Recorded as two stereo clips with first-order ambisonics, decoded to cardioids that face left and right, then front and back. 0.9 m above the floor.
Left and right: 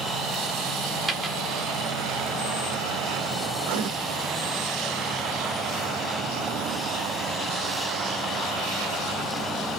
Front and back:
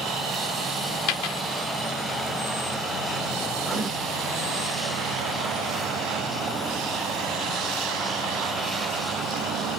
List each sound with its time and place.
1.1 s a dropped coin: 5° right, 0.9 m
3.6 s writing: 115° right, 0.8 m